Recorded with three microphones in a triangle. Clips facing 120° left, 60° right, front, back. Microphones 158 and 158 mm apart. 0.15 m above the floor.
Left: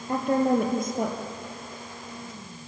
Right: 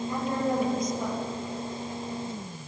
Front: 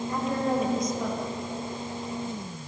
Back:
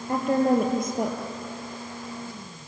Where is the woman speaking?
150° left, 3.5 m.